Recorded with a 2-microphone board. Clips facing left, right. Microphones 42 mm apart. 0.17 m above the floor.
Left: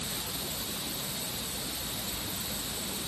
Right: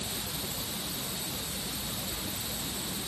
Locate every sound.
Only background noise.